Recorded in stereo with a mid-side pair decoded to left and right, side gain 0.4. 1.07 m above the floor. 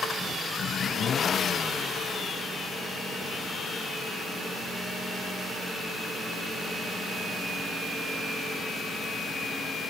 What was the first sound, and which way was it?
Only background noise.